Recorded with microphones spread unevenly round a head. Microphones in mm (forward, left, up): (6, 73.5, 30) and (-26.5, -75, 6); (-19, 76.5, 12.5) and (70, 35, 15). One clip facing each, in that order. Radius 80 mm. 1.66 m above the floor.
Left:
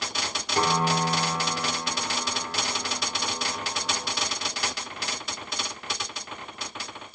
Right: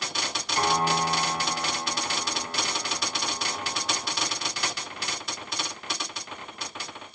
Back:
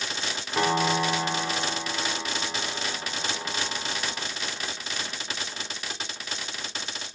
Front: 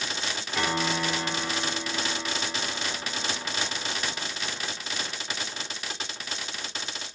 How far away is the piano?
About 3 m.